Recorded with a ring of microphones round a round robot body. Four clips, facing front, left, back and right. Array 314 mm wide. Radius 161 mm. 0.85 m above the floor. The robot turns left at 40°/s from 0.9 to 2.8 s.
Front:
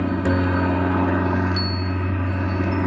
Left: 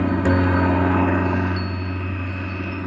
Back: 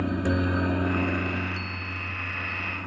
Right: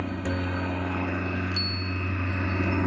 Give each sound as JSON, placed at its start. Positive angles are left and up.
{"t": 0.0, "sound": "a helicopter", "azimuth_deg": 65}
{"t": 1.5, "sound": "a bicycle bell", "azimuth_deg": -40}